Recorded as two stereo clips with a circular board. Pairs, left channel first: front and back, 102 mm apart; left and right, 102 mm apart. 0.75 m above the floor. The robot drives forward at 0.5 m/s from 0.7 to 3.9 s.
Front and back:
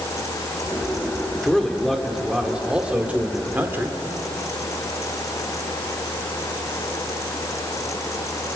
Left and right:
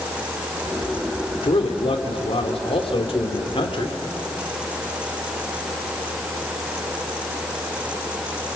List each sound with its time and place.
1.4 s a man speaking: 85° left, 2.5 m; by 4.0 s 115° left, 2.5 m